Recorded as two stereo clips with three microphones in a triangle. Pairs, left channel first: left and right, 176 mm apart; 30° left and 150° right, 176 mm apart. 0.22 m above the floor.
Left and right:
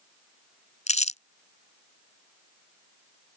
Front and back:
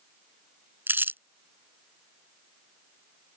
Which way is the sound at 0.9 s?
135° left.